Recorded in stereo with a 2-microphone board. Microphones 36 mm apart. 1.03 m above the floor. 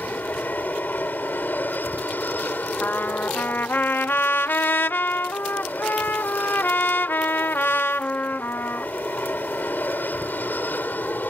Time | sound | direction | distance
0.0 | an aircraft | 60° left (ahead or behind) | ?
2.8 | a trumpet | 70° left (ahead or behind) | ?